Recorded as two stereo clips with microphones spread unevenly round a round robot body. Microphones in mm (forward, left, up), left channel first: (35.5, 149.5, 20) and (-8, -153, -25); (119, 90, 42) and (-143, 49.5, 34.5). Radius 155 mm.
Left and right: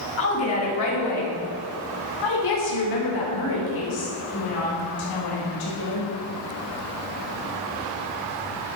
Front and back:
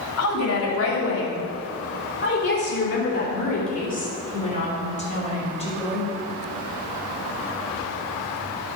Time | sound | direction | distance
0.2 | a woman speaking | 35° left | 2.5 m